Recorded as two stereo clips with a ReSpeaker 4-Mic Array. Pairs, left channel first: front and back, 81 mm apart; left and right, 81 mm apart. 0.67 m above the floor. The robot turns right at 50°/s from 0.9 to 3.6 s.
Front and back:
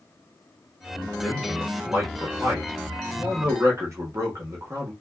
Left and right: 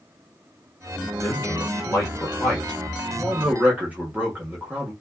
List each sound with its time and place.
1.2 s a man speaking: 90° left, 1.2 m; by 4.9 s 150° right, 1.2 m